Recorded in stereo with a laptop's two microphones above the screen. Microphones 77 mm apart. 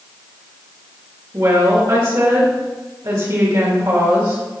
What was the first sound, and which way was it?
A woman speaking, 60° right (ahead or behind).